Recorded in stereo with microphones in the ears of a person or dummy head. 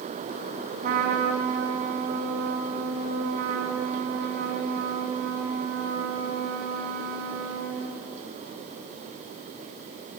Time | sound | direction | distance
0.8 | a trumpet | 50° right (ahead or behind) | 3 m